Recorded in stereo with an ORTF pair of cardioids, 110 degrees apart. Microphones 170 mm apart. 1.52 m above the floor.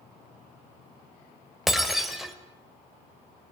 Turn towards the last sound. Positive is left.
turn(degrees=0)